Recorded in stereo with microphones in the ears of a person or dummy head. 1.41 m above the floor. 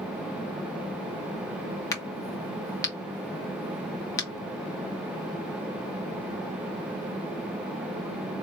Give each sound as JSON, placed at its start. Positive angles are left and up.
{"t": 1.9, "sound": "a crack", "side_deg": 15, "distance_m": 1.6}